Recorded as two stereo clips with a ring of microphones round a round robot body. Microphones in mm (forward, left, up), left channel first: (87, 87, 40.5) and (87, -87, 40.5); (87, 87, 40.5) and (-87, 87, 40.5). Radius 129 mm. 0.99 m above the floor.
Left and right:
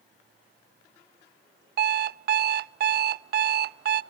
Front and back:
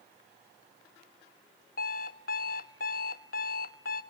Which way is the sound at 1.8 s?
55° right.